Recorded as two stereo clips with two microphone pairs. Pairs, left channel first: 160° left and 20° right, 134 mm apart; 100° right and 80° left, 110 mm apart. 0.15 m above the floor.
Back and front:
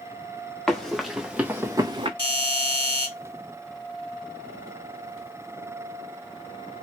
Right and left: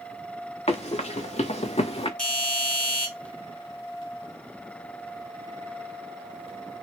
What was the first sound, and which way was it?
Running footsteps, 110° right.